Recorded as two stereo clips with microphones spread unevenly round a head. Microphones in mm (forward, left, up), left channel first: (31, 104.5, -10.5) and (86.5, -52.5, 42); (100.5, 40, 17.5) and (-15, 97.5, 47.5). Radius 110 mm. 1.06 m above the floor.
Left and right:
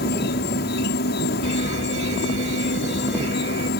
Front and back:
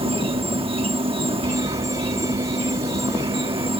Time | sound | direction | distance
0.0 | an insect | 105° left | ?
1.4 | a fire alarm | 135° right | ?